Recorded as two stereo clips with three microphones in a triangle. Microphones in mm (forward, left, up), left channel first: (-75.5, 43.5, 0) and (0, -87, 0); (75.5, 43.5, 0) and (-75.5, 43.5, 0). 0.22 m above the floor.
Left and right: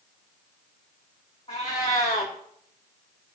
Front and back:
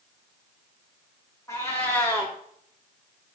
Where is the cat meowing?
70° left, 3 m.